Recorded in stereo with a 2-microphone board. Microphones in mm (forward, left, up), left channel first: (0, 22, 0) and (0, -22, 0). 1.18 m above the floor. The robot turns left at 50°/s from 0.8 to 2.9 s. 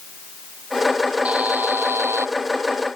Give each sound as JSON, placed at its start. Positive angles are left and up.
{"t": 1.2, "sound": "a buzzer", "azimuth_deg": -30}